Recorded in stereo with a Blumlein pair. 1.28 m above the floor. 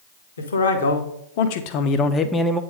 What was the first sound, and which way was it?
A man speaking, 70° left.